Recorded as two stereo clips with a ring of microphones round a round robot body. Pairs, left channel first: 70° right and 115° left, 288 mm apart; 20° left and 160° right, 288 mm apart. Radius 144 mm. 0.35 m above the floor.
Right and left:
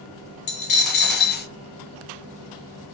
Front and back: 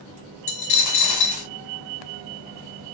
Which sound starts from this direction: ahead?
A dropped coin, at 0.5 s.